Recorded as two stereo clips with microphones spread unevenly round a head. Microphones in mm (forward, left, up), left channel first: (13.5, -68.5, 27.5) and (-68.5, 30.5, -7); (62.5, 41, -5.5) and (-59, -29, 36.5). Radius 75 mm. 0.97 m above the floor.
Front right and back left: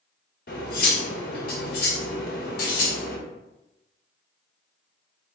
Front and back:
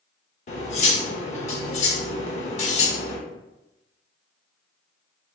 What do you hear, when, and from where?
0.5 s cutlery clinking: 15° right, 1.1 m